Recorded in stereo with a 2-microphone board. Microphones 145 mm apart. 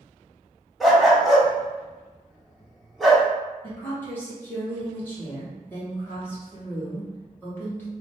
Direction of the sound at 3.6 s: 15° left (ahead or behind).